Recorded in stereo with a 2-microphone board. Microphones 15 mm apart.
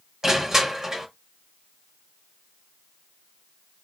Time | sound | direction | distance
0.2 | crushing | 30° right (ahead or behind) | 1.3 m